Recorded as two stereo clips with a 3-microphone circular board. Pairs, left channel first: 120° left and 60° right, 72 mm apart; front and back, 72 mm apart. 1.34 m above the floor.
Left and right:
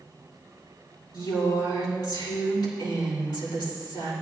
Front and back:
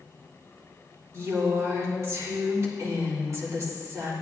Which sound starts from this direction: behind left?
A woman speaking, at 1.1 s.